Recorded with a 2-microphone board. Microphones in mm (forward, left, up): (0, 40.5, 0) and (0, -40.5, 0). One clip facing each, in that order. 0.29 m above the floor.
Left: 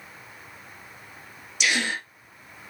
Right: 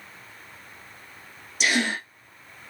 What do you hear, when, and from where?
1.6 s a gasp: 40° right (ahead or behind), 2.5 m